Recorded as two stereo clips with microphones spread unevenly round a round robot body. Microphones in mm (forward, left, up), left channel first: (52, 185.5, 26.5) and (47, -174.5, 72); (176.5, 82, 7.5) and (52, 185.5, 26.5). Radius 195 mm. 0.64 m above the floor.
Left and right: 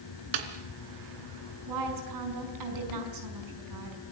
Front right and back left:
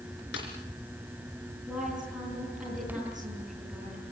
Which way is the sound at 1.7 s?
130° right.